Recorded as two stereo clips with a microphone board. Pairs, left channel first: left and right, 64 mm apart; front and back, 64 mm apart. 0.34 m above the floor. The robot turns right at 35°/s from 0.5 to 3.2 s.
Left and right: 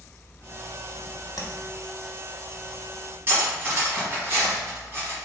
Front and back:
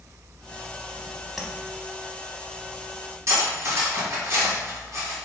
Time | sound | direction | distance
1.4 | tapping | 95° left | 0.6 m
3.3 | cutlery clinking | 145° right | 1.5 m